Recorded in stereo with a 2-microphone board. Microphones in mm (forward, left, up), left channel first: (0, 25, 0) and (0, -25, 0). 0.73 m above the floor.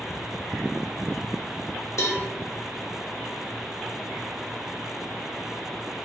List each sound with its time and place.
2.0 s a cowbell: 65° left (ahead or behind), 0.9 m